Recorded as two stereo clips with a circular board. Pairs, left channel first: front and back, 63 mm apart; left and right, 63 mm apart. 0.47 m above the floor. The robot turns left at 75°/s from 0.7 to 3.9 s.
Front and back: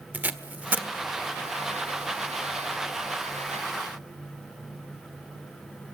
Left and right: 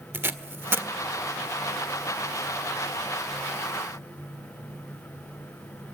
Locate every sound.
0.1 s tape being pulled: 130° right, 1.4 m; by 0.9 s 140° right, 1.4 m